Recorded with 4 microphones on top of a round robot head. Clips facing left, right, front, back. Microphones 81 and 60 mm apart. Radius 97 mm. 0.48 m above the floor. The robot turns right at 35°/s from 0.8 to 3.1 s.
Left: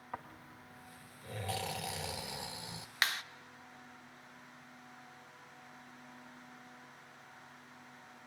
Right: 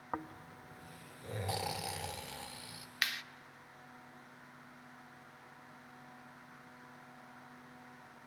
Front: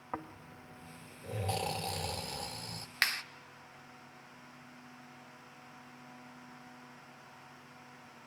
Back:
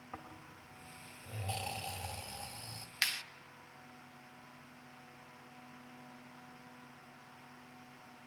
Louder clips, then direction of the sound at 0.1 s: Right 4 dB, front 8 dB; 40° right.